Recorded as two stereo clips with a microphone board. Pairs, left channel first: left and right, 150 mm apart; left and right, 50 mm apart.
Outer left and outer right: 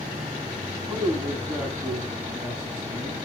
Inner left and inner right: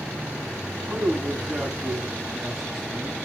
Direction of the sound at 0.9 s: 5° right (ahead or behind).